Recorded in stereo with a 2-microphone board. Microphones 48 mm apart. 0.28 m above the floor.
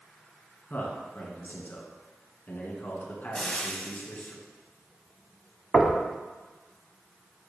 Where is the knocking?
5° left (ahead or behind), 1.1 m.